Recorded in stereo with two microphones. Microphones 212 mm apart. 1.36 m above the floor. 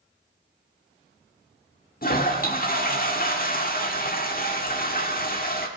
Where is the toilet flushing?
45° left (ahead or behind), 1.5 m.